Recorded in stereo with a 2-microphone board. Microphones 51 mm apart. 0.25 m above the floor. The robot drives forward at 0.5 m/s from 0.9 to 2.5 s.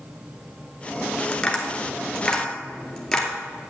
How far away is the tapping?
About 1.2 m.